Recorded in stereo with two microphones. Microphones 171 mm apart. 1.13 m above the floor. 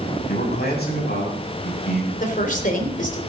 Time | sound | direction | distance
0.3 | a man speaking | 70° left (ahead or behind) | 8 m
2.2 | a woman speaking | 50° left (ahead or behind) | 3 m